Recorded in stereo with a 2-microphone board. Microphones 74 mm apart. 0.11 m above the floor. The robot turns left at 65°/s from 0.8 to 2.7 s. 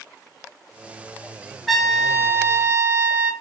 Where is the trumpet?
Straight ahead, 1.0 m; by 3.3 s 65° right, 1.0 m.